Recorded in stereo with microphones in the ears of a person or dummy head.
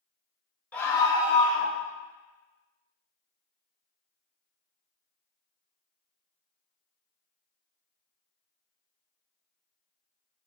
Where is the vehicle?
No vehicle in this recording.